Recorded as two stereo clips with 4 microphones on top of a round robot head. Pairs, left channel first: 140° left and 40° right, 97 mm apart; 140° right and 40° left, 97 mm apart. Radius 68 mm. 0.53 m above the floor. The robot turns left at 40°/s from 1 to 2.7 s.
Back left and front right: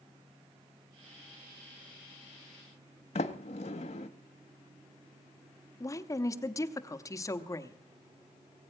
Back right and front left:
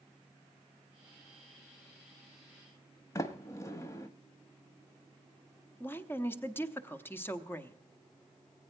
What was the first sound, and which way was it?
A sliding door, 160° left.